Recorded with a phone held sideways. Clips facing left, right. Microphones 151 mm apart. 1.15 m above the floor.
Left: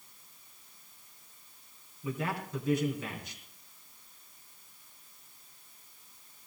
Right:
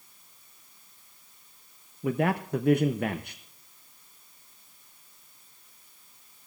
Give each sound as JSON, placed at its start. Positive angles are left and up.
{"t": 2.0, "sound": "a man speaking", "side_deg": -60, "distance_m": 0.8}